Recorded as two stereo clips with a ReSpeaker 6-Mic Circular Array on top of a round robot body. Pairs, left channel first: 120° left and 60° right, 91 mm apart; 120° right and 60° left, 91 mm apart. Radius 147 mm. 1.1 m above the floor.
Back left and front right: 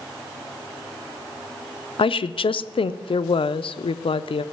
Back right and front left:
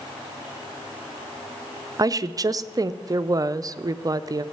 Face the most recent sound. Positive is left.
turn(degrees=110)